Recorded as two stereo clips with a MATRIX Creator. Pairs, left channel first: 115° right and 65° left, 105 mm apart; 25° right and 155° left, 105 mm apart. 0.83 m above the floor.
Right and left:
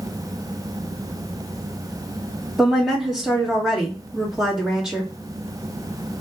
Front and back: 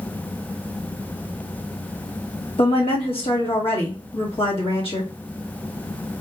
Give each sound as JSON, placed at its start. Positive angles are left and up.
{"t": 2.6, "sound": "a woman speaking", "azimuth_deg": -15, "distance_m": 1.7}